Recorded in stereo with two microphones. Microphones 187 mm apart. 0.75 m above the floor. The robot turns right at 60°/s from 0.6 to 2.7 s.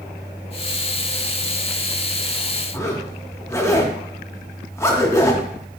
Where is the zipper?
15° left (ahead or behind), 0.6 m.